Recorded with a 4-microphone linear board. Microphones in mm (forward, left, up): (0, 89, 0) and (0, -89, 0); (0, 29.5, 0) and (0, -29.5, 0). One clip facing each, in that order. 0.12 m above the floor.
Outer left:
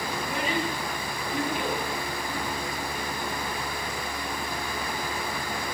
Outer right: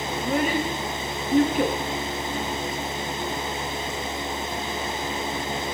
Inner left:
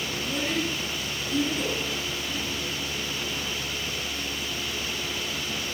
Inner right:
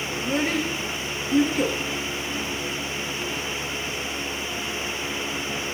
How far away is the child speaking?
About 7.5 m.